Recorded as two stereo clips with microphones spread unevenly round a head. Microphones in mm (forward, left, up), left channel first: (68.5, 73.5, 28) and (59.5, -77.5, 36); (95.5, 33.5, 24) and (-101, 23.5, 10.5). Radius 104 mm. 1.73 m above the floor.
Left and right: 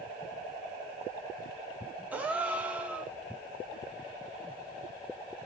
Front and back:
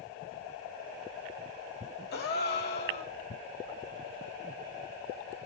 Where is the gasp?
15° right, 1.3 m.